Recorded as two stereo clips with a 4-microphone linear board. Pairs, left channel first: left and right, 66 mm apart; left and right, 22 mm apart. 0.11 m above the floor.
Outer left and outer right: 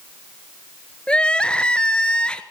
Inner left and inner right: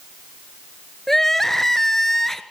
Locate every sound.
1.1 s crying: 15° left (ahead or behind), 1.2 m